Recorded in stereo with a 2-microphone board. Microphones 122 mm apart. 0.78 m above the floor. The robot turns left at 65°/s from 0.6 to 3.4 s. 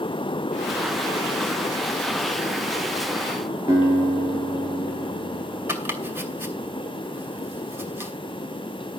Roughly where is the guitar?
Right.